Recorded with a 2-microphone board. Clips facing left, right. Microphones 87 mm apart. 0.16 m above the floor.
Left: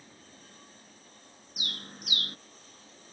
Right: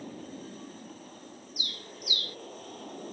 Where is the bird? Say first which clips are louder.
Left 2 dB; 60° left (ahead or behind).